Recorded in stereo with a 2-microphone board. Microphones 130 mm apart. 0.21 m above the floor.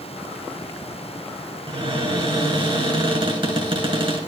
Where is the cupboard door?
45° right (ahead or behind), 2.5 m.